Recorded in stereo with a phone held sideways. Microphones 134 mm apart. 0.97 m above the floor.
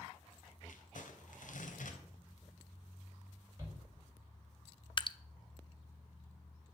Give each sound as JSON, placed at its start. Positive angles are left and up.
{"t": 0.7, "sound": "crumpling", "side_deg": 75, "distance_m": 2.5}
{"t": 3.6, "sound": "a shout", "side_deg": -20, "distance_m": 5.5}
{"t": 5.0, "sound": "dripping", "side_deg": 35, "distance_m": 0.5}